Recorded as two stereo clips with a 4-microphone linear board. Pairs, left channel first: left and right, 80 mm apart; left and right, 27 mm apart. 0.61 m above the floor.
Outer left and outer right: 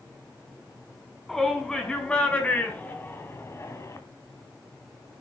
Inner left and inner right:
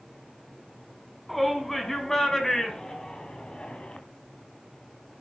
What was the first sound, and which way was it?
A shout, 5° left (ahead or behind).